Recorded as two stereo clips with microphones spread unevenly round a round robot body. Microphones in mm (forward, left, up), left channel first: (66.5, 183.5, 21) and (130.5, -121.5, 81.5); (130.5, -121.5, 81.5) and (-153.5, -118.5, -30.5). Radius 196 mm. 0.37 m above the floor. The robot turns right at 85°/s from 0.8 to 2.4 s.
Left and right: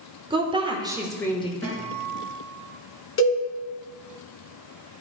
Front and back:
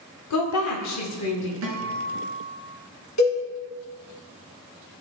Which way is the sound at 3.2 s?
50° left.